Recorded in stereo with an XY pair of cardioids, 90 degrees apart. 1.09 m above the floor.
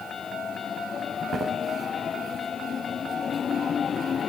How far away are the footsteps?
About 3.5 m.